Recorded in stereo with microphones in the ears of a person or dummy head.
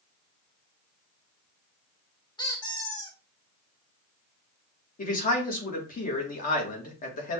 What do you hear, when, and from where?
2.4 s a squeak: 15° left (ahead or behind), 0.7 m
5.0 s a man speaking: 40° left (ahead or behind), 1.3 m